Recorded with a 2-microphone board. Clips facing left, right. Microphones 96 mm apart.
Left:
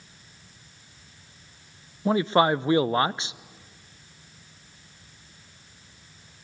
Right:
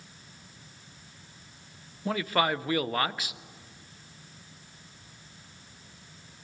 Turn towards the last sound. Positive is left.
turn(degrees=25)  # may be behind; listen again after turning